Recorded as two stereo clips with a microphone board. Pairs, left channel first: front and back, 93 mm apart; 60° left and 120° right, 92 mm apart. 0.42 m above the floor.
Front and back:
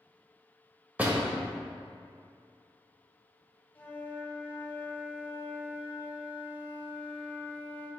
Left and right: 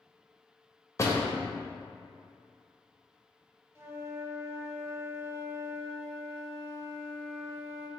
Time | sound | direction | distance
1.0 | a door slam | 110° left | 1.5 m
3.8 | a flute | 65° right | 1.3 m